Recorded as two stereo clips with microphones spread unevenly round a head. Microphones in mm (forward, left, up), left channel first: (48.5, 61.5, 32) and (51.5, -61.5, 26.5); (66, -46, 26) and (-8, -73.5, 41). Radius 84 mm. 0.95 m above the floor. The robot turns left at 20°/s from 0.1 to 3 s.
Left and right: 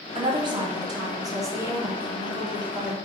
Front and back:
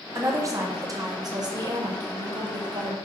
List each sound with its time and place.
0.1 s a woman speaking: 115° right, 1.0 m; by 3.0 s 170° right, 1.0 m